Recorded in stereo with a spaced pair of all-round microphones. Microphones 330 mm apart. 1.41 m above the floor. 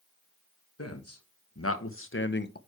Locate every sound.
0.8 s a man speaking: 50° left (ahead or behind), 1.6 m; by 2.6 s 30° left (ahead or behind), 0.7 m